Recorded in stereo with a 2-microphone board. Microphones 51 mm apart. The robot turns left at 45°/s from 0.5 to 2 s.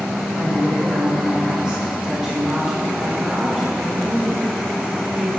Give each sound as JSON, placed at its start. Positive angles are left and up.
{"t": 0.4, "sound": "a woman speaking", "side_deg": -30, "distance_m": 1.0}